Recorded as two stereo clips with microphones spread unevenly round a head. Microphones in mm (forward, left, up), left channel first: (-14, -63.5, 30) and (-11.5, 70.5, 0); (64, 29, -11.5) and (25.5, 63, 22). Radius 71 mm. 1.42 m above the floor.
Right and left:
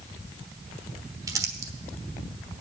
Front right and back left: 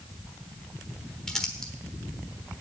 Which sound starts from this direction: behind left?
Crumpling, at 1.3 s.